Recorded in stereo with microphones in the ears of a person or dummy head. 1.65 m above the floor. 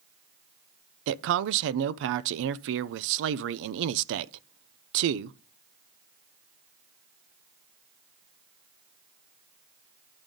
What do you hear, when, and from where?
1.1 s a man speaking: 65° right (ahead or behind), 0.6 m